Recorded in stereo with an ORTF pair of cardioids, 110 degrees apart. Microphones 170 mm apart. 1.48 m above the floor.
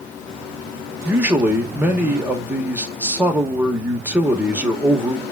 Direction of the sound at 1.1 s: 10° right.